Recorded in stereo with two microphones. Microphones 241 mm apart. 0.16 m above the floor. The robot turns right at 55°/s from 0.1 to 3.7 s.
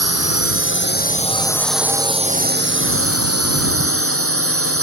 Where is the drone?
90° left; by 4.8 s 70° right.